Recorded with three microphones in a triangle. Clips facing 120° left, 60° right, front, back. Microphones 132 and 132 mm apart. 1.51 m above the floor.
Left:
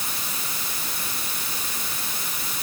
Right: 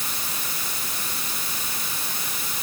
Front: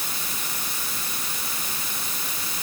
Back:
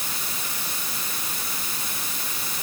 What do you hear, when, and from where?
Only background noise.